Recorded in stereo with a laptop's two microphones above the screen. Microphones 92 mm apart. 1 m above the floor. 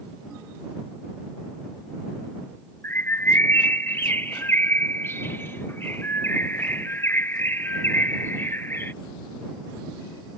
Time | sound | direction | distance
2.8 | a bird | 25° left (ahead or behind) | ?